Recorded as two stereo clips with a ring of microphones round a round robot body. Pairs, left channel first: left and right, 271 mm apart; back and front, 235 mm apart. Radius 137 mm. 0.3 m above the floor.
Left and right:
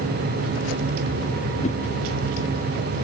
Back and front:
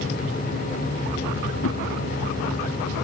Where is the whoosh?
155° left.